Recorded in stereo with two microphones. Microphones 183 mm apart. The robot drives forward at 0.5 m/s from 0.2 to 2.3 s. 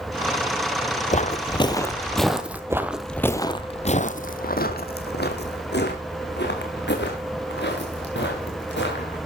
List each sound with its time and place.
1.1 s footsteps: 40° left (ahead or behind), 1.0 m; by 2.6 s 10° right (ahead or behind), 1.2 m
2.7 s footsteps: 15° right (ahead or behind), 0.9 m; by 9.2 s 75° left (ahead or behind), 4.5 m